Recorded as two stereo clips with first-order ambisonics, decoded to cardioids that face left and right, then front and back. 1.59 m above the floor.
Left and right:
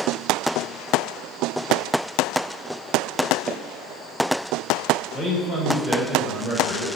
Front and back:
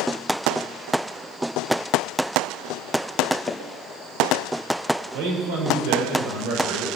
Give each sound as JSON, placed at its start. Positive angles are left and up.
{"t": 3.5, "sound": "footsteps", "azimuth_deg": -25, "distance_m": 1.6}
{"t": 5.1, "sound": "a man speaking", "azimuth_deg": 170, "distance_m": 6.0}